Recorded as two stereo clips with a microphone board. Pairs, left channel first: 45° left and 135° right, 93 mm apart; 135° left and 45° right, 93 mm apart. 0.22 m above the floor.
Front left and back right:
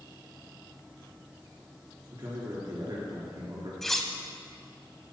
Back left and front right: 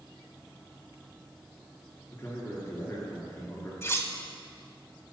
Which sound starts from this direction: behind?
A man speaking, at 2.1 s.